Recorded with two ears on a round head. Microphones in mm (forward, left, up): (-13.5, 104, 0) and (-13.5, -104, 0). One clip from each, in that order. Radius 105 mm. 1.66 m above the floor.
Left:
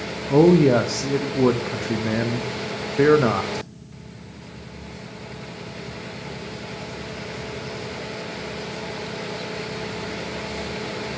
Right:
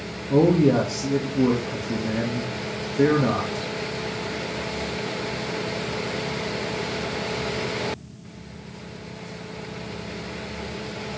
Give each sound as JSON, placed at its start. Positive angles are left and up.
{"t": 0.3, "sound": "a man speaking", "side_deg": 60, "distance_m": 0.7}